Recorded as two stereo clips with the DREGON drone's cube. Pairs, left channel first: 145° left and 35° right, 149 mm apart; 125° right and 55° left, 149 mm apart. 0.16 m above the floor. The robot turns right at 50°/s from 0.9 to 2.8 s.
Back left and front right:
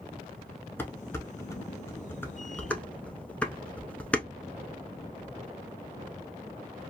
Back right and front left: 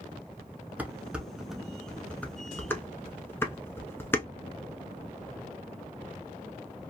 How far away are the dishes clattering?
About 0.7 m.